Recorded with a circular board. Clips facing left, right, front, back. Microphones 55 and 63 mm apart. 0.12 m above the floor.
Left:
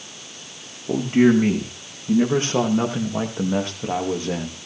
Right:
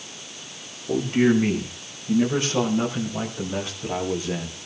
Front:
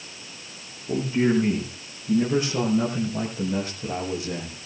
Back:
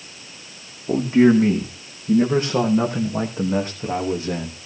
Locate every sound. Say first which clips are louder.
0.9 s a man speaking: left 3 dB, back 7 dB; 150° left, 6 m; by 4.6 s 125° left, 7.5 m